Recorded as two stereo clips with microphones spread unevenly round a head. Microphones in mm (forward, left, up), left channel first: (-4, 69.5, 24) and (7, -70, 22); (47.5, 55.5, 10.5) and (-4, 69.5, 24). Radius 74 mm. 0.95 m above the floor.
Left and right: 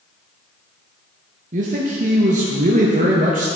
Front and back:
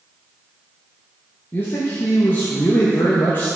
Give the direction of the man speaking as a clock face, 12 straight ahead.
2 o'clock.